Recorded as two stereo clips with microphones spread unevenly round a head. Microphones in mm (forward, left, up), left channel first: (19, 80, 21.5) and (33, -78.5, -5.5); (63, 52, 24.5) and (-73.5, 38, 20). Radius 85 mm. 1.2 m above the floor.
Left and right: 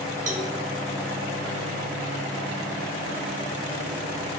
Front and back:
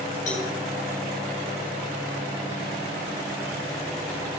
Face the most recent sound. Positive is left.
turn(degrees=-45)